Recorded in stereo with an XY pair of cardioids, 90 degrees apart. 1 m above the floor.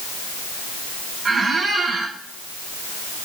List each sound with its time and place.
1.2 s a squeak: 55° right, 1.3 m